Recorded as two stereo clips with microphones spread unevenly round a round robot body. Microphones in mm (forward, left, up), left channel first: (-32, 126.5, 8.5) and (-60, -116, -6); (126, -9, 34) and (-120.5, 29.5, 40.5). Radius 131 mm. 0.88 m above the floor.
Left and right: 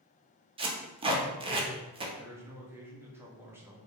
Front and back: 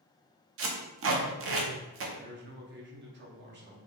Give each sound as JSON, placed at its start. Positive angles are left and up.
{"t": 0.6, "sound": "tape being pulled", "azimuth_deg": -160, "distance_m": 0.7}
{"t": 2.1, "sound": "a man speaking", "azimuth_deg": -170, "distance_m": 1.0}